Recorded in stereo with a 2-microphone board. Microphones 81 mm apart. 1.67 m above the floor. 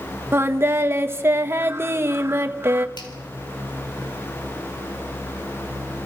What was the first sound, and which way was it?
Singing, 30° right (ahead or behind).